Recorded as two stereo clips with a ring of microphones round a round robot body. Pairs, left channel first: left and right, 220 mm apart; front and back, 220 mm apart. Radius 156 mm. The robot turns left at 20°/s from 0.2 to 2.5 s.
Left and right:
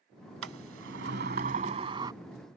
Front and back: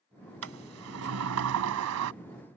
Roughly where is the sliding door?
Behind right.